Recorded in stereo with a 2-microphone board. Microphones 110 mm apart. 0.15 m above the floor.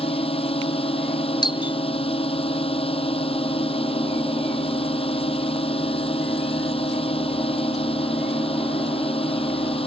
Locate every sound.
0.0 s a drone: 60° left (ahead or behind)
1.4 s a doorbell: 45° left (ahead or behind)